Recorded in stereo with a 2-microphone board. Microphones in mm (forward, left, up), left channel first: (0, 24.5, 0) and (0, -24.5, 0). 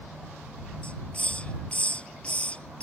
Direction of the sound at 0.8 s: 25° left (ahead or behind).